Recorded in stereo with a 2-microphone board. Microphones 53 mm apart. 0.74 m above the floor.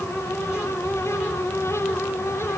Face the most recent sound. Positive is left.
No sound to turn to.